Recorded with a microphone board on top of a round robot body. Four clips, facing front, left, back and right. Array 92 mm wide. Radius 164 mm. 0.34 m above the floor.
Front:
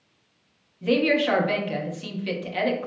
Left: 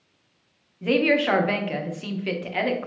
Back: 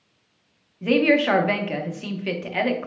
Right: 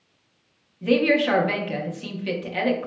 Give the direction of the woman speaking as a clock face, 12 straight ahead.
7 o'clock.